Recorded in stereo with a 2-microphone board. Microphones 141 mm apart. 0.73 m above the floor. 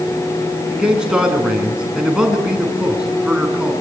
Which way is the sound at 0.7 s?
5° right (ahead or behind).